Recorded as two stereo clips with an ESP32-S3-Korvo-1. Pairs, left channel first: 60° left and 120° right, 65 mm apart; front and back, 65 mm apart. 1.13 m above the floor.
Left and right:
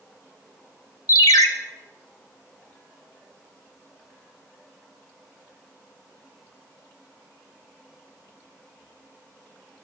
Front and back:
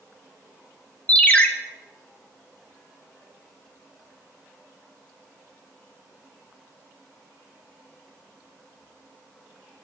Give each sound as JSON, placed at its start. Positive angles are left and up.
{"t": 1.1, "sound": "a ringtone", "azimuth_deg": 65, "distance_m": 0.7}